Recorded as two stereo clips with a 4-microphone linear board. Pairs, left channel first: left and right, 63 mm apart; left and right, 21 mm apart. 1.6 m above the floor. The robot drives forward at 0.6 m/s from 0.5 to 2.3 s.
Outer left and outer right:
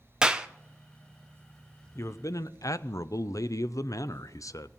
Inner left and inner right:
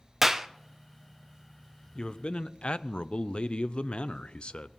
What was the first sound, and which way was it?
A clap, 15° right (ahead or behind).